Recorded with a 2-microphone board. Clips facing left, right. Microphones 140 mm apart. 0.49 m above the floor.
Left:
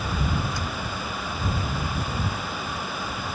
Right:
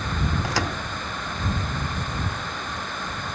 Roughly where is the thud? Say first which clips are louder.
Right 4 dB; right.